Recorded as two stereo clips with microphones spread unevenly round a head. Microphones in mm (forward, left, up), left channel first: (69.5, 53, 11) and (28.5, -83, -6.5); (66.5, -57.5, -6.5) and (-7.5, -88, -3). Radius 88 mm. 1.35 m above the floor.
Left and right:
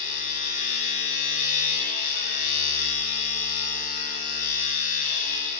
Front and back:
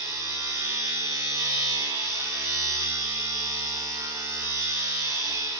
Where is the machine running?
120° left, 6 m.